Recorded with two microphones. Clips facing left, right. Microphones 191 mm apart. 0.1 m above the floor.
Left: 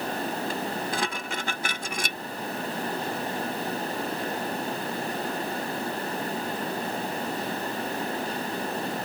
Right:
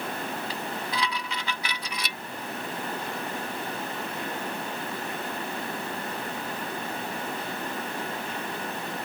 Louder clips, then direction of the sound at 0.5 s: Left 3 dB; 45° left (ahead or behind).